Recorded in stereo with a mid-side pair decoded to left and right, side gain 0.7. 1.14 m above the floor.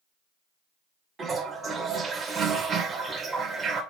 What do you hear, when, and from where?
1.2 s a toilet flushing: 25° right, 2 m